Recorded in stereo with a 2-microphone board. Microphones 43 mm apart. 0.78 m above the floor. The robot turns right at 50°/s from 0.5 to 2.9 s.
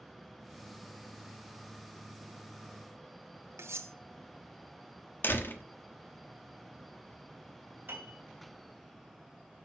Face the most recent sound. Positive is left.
turn(degrees=-55)  # may be behind; listen again after turning